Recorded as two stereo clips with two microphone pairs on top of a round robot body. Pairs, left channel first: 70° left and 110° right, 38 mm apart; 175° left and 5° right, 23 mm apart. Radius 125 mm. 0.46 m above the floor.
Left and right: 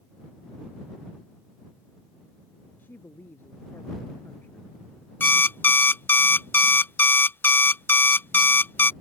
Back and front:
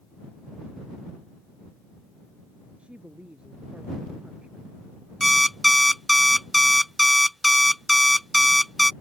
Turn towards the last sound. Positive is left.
turn(degrees=85)